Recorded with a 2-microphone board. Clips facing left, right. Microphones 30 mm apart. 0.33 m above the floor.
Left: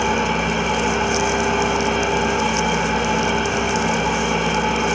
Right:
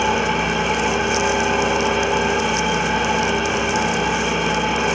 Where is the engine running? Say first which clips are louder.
Right 1 dB; 15° right (ahead or behind), 1.8 m.